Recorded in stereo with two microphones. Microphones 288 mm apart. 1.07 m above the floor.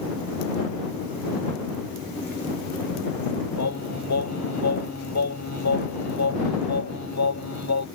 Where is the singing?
70° left (ahead or behind).